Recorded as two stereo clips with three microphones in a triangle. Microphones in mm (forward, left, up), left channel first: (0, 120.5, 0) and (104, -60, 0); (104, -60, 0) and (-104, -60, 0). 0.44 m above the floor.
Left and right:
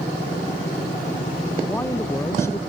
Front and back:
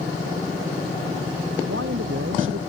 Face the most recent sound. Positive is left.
turn(degrees=-160)